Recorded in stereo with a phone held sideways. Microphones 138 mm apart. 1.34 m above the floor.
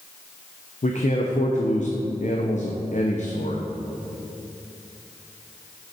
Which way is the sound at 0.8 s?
60° left (ahead or behind).